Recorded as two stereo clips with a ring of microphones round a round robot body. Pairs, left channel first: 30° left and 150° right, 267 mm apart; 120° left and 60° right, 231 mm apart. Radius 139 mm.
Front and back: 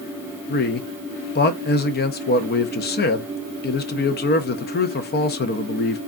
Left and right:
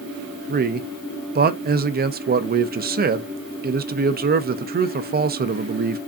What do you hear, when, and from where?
0.5 s a man speaking: 15° right, 0.6 m